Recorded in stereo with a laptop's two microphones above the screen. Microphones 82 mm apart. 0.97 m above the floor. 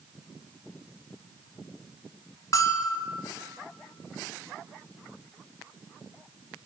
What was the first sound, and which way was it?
A bell, 45° left (ahead or behind).